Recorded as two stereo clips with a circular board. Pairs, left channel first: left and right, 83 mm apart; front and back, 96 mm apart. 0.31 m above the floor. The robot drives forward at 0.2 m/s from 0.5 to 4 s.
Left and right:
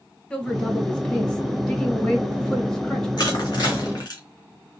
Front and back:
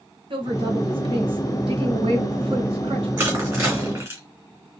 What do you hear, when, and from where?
0.3 s a woman speaking: 165° left, 2 m; by 3.1 s 170° left, 2.5 m
3.2 s crushing: 120° left, 3 m; by 4.2 s 125° left, 3 m